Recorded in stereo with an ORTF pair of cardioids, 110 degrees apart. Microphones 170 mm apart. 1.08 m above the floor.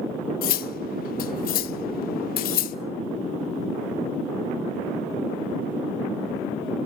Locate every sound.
0.4 s cutlery clinking: 60° left, 0.8 m